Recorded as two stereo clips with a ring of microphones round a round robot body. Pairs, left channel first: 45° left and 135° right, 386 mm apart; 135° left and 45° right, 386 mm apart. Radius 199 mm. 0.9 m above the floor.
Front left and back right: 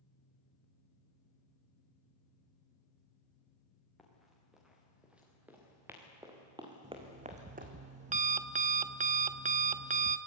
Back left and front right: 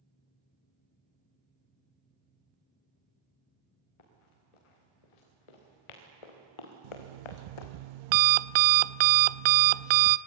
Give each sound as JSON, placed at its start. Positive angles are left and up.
{"t": 4.0, "sound": "running footsteps", "azimuth_deg": 135, "distance_m": 6.5}
{"t": 6.8, "sound": "an alarm clock", "azimuth_deg": -65, "distance_m": 0.5}